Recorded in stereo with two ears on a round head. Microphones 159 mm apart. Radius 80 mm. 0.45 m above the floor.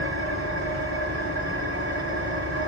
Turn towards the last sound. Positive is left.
turn(degrees=-70)  # may be behind; listen again after turning